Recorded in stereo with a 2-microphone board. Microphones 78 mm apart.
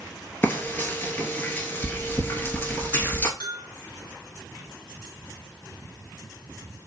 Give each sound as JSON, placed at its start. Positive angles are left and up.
{"t": 0.4, "sound": "frying", "side_deg": 25, "distance_m": 0.9}
{"t": 3.4, "sound": "a bell", "side_deg": 65, "distance_m": 3.0}